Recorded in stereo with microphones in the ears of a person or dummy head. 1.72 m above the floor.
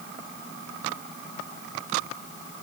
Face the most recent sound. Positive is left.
No sound to turn to.